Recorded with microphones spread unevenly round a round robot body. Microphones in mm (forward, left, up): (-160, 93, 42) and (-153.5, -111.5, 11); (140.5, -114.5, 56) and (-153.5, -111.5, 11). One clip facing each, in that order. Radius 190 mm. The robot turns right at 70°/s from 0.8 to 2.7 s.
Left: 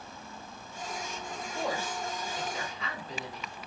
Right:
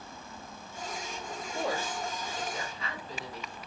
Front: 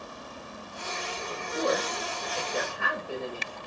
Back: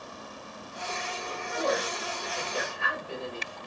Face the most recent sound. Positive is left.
turn(degrees=55)